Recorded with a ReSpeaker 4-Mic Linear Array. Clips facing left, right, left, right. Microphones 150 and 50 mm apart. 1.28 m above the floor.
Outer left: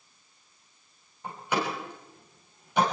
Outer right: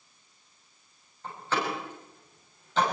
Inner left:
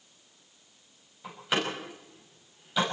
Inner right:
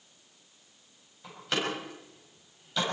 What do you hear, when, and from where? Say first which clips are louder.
1.2 s a door slam: outer left 1 dB, inner left 2 dB; 15° left (ahead or behind), 7 m